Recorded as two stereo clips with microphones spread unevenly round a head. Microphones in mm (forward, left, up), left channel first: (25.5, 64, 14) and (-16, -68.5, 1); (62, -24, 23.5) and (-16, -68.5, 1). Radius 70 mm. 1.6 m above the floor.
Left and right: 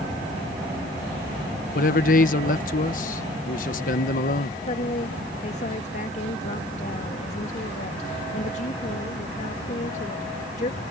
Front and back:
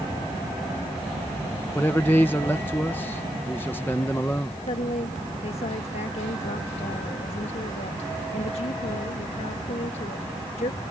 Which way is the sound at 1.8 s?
105° left.